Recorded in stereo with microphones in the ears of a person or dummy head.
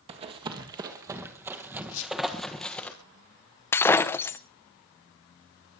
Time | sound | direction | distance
0.1 | running footsteps | 35° right (ahead or behind) | 2 m
1.9 | a squeak | 60° left (ahead or behind) | 2.5 m
3.7 | breaking glass | 10° left (ahead or behind) | 0.9 m